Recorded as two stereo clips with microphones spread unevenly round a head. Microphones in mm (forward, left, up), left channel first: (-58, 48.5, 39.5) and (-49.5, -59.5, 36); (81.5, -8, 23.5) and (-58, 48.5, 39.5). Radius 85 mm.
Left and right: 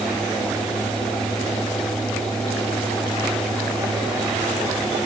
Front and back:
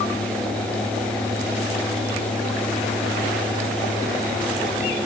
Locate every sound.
Only background noise.